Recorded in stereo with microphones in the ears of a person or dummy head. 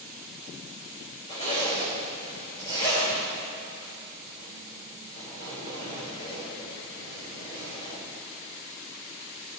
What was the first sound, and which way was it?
A zipper, 35° left (ahead or behind).